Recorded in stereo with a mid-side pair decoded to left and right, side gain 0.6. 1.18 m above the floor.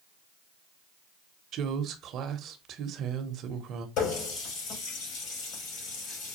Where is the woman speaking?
55° right, 0.8 m.